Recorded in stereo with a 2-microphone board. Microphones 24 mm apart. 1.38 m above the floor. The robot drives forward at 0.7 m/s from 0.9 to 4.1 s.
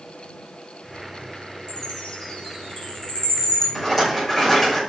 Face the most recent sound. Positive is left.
turn(degrees=15)  # may be behind; listen again after turning